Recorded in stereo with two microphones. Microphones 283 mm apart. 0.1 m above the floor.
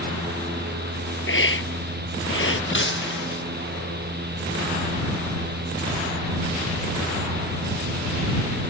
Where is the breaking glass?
45° left (ahead or behind).